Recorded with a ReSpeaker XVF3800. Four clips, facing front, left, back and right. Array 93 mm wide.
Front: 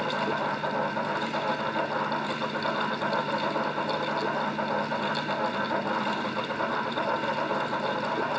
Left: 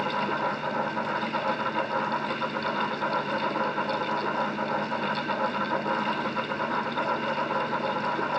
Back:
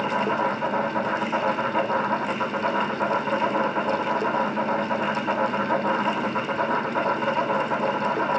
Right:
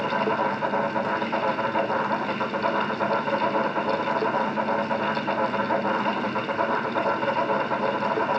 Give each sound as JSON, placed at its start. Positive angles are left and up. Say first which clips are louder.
{"t": 0.0, "sound": "an insect", "louder": "right 4 dB, back 5 dB", "azimuth_deg": -140, "distance_m": 6.0}